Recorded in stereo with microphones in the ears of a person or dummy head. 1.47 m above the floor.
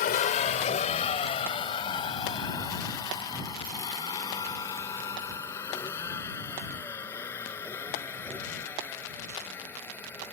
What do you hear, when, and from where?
0.0 s a vehicle: 45° left (ahead or behind); by 10.3 s 10° left (ahead or behind)